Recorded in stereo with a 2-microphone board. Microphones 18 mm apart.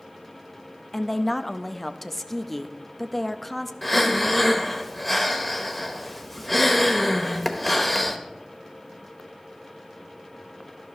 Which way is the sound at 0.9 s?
10° left (ahead or behind).